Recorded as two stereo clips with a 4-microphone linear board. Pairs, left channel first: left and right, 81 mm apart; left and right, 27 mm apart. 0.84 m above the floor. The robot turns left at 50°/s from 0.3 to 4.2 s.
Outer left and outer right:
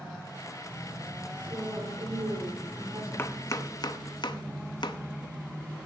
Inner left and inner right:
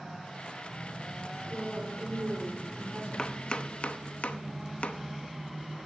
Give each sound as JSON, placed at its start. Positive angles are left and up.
{"t": 1.5, "sound": "a woman speaking", "azimuth_deg": -50, "distance_m": 3.0}
{"t": 3.2, "sound": "chopping", "side_deg": 25, "distance_m": 0.7}